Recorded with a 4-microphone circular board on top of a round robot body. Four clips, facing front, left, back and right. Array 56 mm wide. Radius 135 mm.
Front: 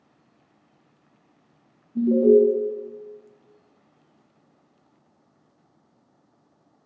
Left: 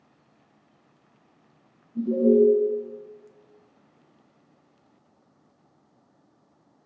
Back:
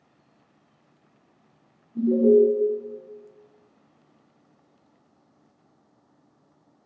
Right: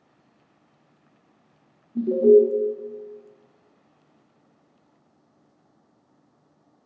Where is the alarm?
65° right, 0.7 m.